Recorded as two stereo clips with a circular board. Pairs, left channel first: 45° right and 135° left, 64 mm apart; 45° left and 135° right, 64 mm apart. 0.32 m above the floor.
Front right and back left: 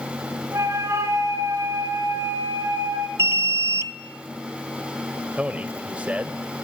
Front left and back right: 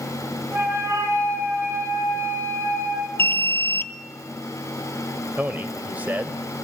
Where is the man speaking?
170° right, 1.6 m.